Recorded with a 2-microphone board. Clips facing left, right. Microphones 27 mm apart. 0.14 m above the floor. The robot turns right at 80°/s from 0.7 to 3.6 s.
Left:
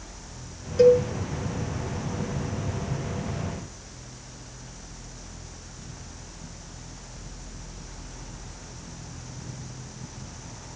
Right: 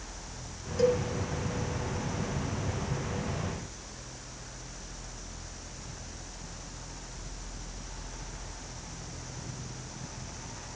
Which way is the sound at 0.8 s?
20° left (ahead or behind).